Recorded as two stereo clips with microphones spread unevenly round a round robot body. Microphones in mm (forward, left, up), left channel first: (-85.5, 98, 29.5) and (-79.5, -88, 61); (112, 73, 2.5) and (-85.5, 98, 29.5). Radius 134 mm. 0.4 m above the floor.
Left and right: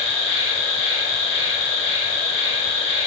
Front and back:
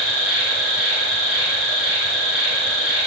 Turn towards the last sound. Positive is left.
turn(degrees=0)